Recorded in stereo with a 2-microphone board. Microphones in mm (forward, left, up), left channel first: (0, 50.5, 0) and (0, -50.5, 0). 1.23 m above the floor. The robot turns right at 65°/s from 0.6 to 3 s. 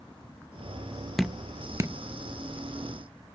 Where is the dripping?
Centre (ahead or behind), 0.6 m; by 2.0 s 35° right (ahead or behind), 0.6 m.